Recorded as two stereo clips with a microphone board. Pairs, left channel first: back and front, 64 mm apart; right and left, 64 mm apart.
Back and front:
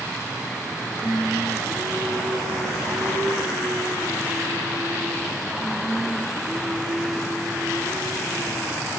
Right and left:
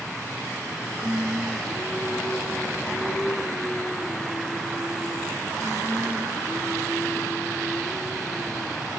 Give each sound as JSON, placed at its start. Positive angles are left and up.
{"t": 1.0, "sound": "singing", "azimuth_deg": -35, "distance_m": 4.5}